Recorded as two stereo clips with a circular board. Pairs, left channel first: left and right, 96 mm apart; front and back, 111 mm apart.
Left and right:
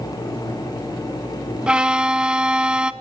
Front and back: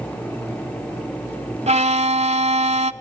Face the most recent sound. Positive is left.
turn(degrees=-170)